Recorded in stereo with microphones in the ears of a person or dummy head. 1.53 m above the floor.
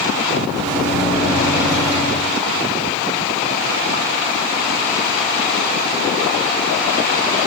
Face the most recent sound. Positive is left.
turn(degrees=-15)  # may be behind; listen again after turning